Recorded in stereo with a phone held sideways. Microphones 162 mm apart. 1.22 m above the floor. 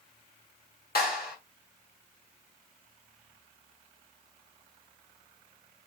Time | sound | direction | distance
0.9 | a clap | 75° left (ahead or behind) | 1.5 m